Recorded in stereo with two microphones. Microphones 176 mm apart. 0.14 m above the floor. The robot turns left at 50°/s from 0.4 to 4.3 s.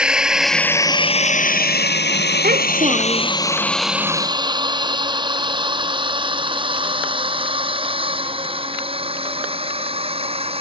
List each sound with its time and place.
0.0 s a drone: 5° right (ahead or behind); by 10.6 s 30° right (ahead or behind)
2.4 s a child speaking: 120° right; by 3.3 s 165° right